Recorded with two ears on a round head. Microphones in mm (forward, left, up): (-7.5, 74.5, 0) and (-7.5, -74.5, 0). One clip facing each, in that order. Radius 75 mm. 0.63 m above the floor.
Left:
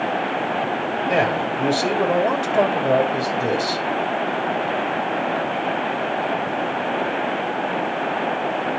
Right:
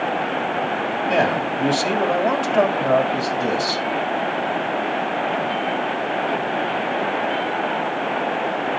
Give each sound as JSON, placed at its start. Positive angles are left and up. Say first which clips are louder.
{"t": 1.1, "sound": "a man speaking", "louder": "right 1 dB", "side_deg": 10, "distance_m": 2.5}